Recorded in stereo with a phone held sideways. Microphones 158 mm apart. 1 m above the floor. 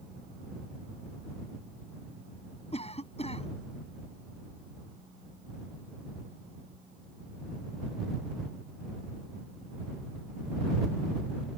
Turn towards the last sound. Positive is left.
turn(degrees=40)  # may be behind; listen again after turning